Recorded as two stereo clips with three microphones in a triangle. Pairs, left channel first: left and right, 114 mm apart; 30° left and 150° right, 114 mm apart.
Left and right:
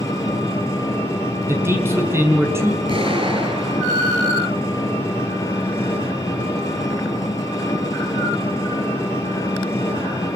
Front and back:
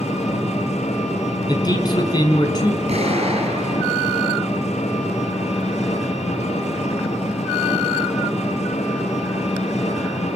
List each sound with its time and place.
0.0 s an engine running: 30° left, 8.5 m
1.5 s a man speaking: 20° right, 5.5 m
2.9 s an explosion: 125° right, 10 m